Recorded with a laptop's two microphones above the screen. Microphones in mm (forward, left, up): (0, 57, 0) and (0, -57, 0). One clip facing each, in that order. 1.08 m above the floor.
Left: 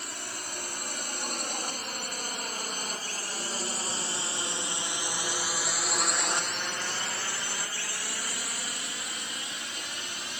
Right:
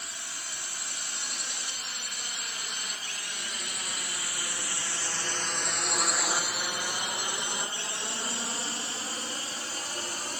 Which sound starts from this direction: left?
A drone, at 0.0 s.